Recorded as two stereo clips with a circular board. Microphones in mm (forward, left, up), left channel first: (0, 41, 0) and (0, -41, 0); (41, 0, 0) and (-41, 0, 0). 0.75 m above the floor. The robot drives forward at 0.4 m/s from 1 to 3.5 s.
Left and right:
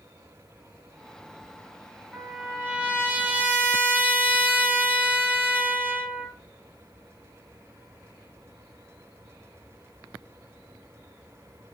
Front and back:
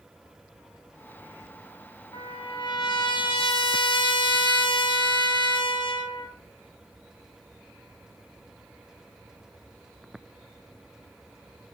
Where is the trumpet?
15° right, 3 m; by 6.3 s 20° right, 2.5 m.